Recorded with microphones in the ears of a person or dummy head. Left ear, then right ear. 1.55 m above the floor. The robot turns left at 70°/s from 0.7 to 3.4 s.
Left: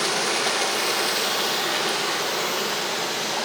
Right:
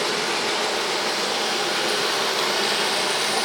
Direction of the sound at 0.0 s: 90° left.